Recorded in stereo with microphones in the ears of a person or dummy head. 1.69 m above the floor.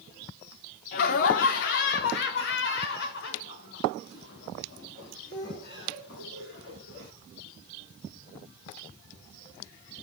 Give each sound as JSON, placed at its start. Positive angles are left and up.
{"t": 0.9, "sound": "laughter", "side_deg": 50, "distance_m": 0.9}